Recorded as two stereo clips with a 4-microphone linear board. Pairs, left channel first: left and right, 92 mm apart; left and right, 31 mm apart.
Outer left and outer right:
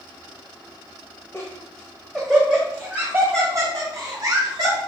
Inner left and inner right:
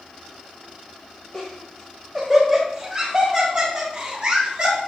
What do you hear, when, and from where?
1.3 s laughter: 30° left (ahead or behind), 2 m; by 4.8 s 45° right (ahead or behind), 4 m